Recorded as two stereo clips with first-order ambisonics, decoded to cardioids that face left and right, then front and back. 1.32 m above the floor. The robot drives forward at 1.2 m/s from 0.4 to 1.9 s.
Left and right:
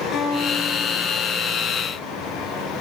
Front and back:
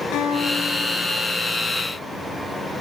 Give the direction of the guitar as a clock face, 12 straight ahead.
11 o'clock.